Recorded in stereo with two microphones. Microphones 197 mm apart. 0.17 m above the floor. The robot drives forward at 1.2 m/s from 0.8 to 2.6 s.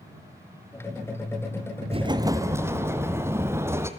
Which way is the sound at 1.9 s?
30° right (ahead or behind).